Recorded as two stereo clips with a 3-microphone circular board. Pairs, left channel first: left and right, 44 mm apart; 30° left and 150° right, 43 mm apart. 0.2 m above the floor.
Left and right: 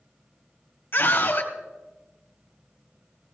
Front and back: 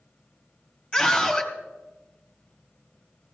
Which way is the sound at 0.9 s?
95° left.